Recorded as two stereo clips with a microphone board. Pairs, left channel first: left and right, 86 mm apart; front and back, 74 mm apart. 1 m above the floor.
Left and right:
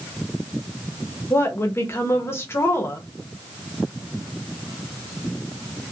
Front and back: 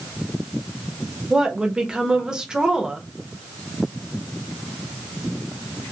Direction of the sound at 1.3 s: 110° left.